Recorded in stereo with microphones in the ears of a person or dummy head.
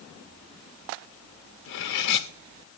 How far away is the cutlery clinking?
About 1.1 m.